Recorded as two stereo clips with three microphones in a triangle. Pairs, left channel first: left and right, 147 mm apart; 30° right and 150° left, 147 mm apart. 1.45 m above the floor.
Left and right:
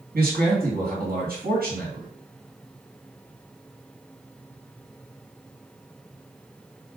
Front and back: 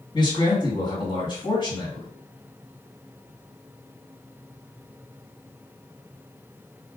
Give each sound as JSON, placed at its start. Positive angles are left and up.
{"t": 0.1, "sound": "a man speaking", "azimuth_deg": -90, "distance_m": 2.5}